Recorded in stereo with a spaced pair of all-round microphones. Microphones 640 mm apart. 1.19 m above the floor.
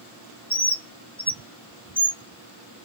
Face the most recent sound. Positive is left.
turn(degrees=5)  # may be behind; listen again after turning